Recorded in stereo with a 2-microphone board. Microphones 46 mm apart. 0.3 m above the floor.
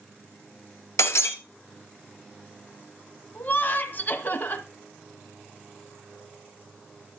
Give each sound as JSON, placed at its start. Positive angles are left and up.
{"t": 1.0, "sound": "breaking glass", "side_deg": 80, "distance_m": 1.5}
{"t": 3.4, "sound": "laughter", "side_deg": 45, "distance_m": 1.6}